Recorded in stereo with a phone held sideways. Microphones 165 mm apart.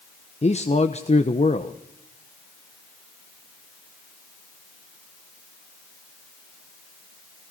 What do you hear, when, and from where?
0.4 s a man speaking: 40° left (ahead or behind), 1.0 m